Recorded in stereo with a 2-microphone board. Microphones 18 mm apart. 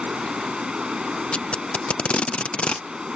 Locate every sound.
0.0 s running water: 70° right (ahead or behind)
1.3 s tape being pulled: 85° left